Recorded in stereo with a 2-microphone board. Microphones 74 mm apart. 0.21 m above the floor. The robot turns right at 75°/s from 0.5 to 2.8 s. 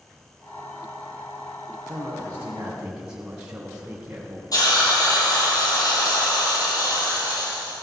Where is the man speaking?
90° right, 2.0 m; by 4.4 s 20° right, 2.0 m.